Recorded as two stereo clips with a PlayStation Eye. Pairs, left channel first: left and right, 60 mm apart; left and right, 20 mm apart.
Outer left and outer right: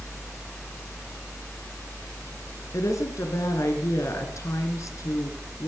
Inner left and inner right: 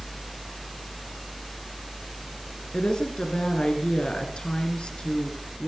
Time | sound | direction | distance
2.7 | a woman speaking | 60° left (ahead or behind) | 2.5 m